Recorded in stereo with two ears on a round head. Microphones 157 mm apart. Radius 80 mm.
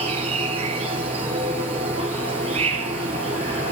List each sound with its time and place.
0.0 s an insect: 35° right (ahead or behind), 1.9 m